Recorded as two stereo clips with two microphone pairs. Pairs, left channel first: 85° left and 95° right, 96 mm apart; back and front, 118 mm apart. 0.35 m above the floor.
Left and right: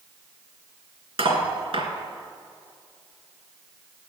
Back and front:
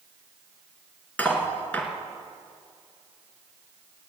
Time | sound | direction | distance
1.2 | cutlery clinking | 105° right | 2.5 m